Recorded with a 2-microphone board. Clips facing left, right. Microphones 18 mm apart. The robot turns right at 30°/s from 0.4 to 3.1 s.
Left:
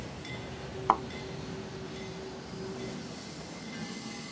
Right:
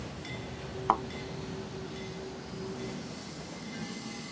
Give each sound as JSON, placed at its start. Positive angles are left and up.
{"t": 0.9, "sound": "a thud", "side_deg": 5}